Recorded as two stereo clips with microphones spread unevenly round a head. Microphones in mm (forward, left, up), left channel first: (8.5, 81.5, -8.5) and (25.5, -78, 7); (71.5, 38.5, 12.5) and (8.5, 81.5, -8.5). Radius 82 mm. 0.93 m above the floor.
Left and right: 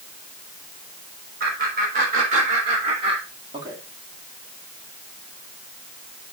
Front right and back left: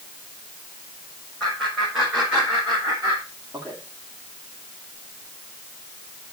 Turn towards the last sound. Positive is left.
turn(degrees=-145)